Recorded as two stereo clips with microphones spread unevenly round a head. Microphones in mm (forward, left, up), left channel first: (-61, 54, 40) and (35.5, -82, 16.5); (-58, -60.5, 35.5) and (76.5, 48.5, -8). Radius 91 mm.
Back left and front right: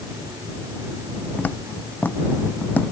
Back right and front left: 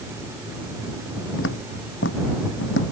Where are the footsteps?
155° right.